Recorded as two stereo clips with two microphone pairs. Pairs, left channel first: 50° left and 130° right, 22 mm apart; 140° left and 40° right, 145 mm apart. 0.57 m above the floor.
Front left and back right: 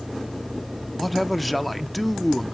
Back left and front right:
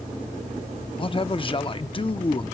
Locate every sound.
1.0 s a man speaking: 135° left, 0.7 m